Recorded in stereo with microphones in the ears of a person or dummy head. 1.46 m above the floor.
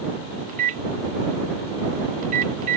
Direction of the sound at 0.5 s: 40° right (ahead or behind).